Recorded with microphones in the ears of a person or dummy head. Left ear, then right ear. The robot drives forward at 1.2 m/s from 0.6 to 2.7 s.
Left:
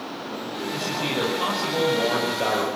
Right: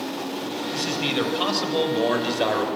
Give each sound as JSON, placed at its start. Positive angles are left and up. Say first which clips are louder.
{"t": 0.7, "sound": "a man speaking", "louder": "right 1 dB", "side_deg": -30, "distance_m": 8.5}